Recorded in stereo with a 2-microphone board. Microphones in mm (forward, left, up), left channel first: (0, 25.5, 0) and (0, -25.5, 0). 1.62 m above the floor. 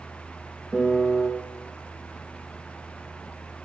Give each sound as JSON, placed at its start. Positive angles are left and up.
{"t": 0.7, "sound": "a piano", "side_deg": -5, "distance_m": 0.8}